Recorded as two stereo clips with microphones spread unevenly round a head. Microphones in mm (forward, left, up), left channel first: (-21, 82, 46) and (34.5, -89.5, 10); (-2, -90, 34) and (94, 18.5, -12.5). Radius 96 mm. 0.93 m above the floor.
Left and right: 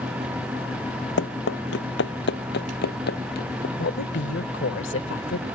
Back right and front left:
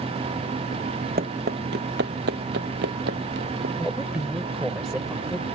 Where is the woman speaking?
135° left.